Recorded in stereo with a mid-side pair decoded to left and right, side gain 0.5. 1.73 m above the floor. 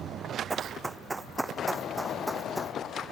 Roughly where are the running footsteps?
Ahead right.